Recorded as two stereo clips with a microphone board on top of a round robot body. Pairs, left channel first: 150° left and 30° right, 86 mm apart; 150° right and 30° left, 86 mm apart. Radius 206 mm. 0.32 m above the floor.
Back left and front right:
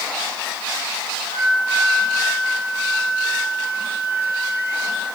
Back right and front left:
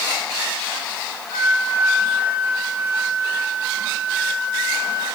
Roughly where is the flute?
Behind.